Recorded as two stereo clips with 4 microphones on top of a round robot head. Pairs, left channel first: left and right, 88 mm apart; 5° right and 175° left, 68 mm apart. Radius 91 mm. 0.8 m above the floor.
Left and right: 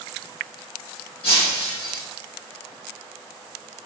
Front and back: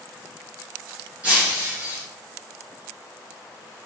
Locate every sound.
1.2 s breaking glass: 105° left, 1.8 m